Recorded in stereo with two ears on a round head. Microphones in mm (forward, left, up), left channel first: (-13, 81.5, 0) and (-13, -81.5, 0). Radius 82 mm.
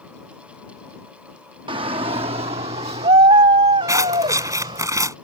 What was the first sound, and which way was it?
A shout, 30° right (ahead or behind).